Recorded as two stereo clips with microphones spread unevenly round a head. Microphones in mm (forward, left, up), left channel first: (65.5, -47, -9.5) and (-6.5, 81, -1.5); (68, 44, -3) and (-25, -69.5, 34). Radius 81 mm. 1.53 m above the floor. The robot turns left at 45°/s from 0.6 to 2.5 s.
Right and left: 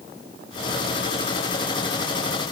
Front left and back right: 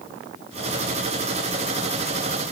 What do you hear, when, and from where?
Only background noise.